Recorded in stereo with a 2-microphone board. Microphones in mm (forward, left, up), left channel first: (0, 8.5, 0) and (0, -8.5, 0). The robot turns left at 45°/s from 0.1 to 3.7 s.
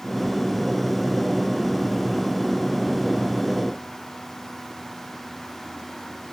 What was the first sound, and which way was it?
Only background noise.